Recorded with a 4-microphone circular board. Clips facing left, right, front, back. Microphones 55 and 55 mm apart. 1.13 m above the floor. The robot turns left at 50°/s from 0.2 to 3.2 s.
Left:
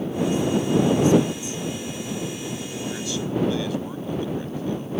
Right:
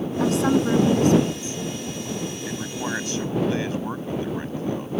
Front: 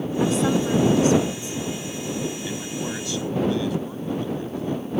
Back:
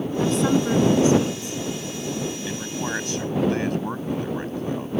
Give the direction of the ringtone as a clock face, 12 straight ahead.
No ringtone in this recording.